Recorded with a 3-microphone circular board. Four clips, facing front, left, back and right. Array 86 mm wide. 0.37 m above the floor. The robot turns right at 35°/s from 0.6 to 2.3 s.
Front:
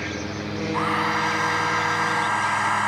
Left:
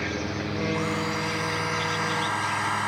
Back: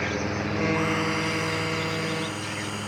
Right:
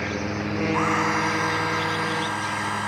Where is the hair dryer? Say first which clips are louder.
Right 5 dB, front 3 dB; 55° right; by 2.9 s straight ahead.